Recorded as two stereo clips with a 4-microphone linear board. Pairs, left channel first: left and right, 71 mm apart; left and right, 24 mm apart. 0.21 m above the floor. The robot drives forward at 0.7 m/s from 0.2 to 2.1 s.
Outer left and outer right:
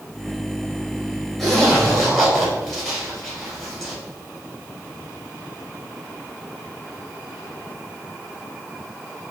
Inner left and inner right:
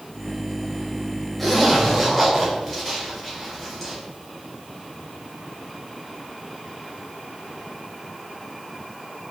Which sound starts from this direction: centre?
A zipper, at 1.4 s.